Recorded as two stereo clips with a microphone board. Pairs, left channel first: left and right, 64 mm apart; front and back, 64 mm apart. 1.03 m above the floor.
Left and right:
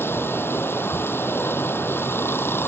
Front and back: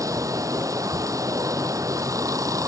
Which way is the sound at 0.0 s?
145° left.